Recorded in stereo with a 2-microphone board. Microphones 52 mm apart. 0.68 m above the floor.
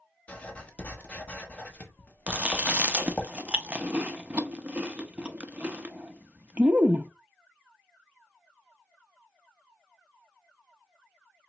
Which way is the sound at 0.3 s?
25° left (ahead or behind).